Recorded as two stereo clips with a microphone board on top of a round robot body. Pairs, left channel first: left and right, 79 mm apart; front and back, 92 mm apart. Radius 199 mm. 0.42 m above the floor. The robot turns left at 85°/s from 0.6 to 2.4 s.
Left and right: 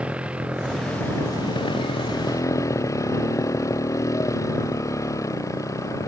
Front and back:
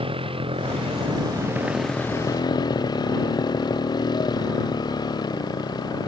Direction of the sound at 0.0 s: 165° right.